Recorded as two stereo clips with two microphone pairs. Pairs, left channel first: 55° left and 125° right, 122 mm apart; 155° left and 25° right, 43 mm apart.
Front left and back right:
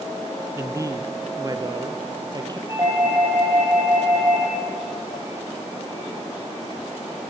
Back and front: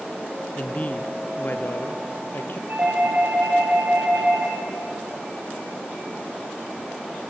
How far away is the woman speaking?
About 1.2 m.